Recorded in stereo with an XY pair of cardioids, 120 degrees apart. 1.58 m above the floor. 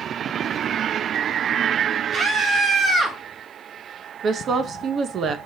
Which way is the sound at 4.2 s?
45° right.